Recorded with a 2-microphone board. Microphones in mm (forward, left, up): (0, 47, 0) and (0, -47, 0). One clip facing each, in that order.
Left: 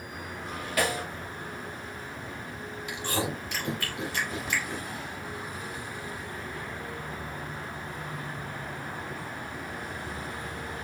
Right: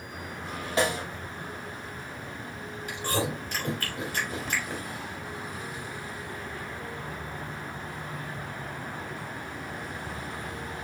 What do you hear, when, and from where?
0.8 s a snare drum: 25° right (ahead or behind), 1.2 m
2.9 s chewing: 40° right (ahead or behind), 2.5 m